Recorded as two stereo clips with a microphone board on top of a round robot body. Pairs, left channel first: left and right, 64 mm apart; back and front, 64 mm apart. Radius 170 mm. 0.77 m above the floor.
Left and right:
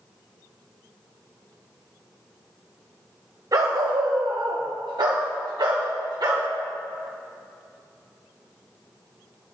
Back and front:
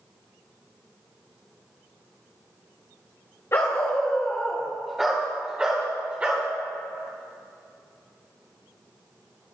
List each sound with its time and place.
3.5 s a dog barking: 125° right, 1.3 m; by 6.5 s 65° right, 2.5 m